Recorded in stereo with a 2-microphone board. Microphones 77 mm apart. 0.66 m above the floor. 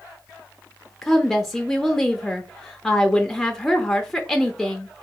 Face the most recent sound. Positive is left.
turn(degrees=0)  # may be behind; listen again after turning